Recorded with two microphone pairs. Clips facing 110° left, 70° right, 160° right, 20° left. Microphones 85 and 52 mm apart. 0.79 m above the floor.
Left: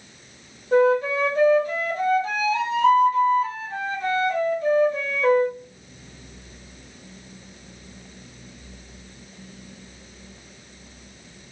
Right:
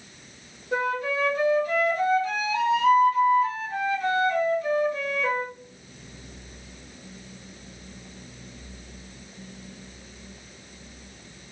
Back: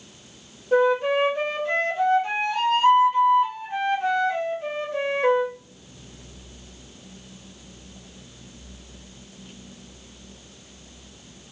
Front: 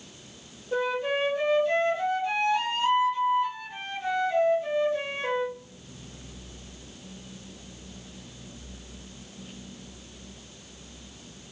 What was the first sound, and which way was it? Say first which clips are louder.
A flute: left 8 dB, back 8 dB; 170° left.